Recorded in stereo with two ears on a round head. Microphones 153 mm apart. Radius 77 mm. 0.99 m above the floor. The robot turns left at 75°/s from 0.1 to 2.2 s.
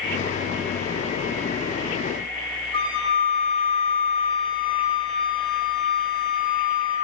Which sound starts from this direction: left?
A flute, at 2.7 s.